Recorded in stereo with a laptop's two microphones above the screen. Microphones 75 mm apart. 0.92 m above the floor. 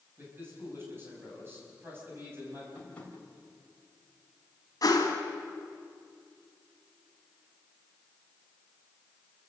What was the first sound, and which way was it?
A man speaking, 30° right (ahead or behind).